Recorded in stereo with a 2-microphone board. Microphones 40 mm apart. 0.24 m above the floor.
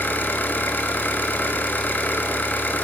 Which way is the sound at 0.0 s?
55° left (ahead or behind).